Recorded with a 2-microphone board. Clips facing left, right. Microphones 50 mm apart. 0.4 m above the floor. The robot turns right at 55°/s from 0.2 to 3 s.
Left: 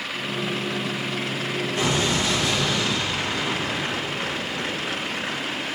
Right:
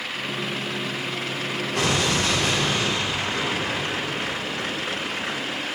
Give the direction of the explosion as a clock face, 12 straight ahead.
3 o'clock.